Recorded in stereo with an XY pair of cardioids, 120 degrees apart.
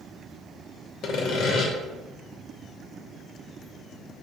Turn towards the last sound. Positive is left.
turn(degrees=60)